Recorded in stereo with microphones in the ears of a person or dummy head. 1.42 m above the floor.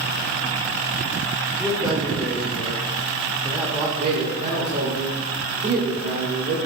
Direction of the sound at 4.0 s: 30° right (ahead or behind).